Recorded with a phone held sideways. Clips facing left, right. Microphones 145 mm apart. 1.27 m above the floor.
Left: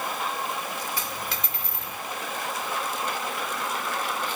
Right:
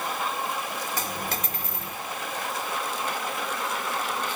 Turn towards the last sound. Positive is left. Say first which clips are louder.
# right 2 dB
turn(degrees=-45)  # may be behind; listen again after turning